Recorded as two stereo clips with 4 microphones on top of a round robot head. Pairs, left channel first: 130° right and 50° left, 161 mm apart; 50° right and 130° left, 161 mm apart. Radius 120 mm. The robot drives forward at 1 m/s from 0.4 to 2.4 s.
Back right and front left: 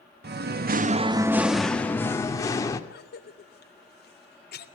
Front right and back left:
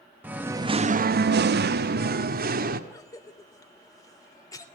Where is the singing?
50° left, 0.8 m; by 2.8 s 160° left, 1.7 m.